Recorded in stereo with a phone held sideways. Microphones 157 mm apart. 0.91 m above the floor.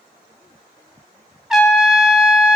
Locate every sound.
1.5 s a trumpet: centre (ahead or behind), 0.7 m